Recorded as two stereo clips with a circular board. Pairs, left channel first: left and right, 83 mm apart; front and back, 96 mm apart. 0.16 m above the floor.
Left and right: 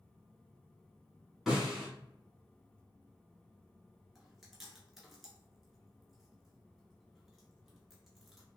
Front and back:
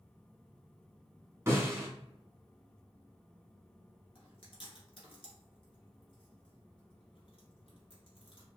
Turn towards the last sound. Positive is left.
turn(degrees=-5)